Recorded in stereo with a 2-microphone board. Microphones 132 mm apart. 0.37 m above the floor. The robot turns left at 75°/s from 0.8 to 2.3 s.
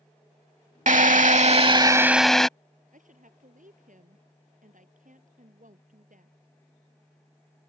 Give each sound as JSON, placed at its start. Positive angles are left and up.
{"t": 0.9, "sound": "a drill", "azimuth_deg": -75}
{"t": 2.9, "sound": "a woman speaking", "side_deg": -80}